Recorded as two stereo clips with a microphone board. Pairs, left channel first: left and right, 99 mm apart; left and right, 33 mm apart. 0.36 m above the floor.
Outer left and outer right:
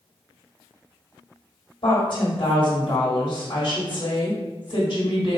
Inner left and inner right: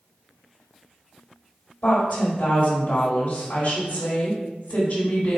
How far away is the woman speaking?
About 1.5 m.